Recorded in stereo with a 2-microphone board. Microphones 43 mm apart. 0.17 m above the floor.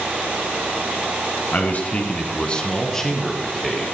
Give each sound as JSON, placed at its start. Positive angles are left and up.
{"t": 1.5, "sound": "a man speaking", "side_deg": 40, "distance_m": 1.8}